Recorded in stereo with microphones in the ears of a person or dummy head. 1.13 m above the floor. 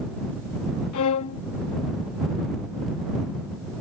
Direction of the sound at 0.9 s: 80° left.